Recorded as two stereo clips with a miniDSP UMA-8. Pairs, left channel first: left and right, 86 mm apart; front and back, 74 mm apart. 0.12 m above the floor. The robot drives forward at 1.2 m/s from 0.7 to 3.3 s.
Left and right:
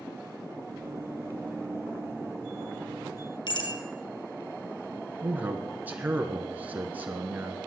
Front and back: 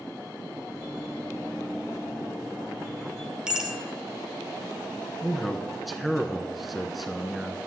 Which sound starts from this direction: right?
A man speaking, at 5.2 s.